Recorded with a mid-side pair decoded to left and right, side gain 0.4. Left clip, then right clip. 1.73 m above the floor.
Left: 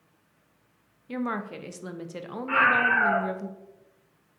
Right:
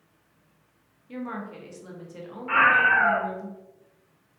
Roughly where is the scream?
Ahead.